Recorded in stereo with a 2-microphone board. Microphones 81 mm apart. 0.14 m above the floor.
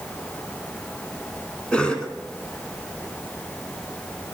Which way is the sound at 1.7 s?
10° left (ahead or behind).